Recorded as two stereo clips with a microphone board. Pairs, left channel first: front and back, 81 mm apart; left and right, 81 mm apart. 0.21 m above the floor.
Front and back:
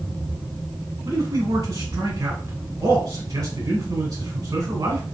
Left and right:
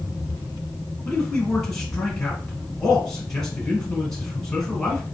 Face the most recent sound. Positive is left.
turn(degrees=170)